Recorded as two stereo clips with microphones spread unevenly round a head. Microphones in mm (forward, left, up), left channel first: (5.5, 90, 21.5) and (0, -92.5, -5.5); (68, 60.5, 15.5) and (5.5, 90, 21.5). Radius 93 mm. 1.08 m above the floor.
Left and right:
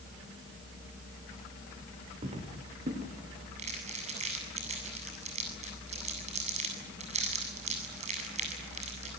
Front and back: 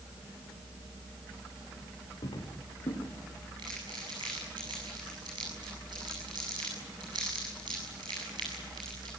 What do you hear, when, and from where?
2.2 s footsteps: 30° right, 4.5 m; by 3.5 s 45° right, 6 m
3.6 s crumpling: 150° right, 7.5 m